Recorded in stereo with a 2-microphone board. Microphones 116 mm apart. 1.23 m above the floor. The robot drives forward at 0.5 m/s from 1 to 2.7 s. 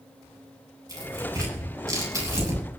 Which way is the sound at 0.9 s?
25° right (ahead or behind).